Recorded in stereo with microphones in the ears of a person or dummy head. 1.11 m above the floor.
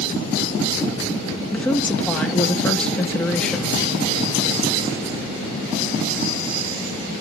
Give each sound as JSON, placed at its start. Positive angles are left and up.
{"t": 1.5, "sound": "a woman speaking", "side_deg": 5, "distance_m": 1.6}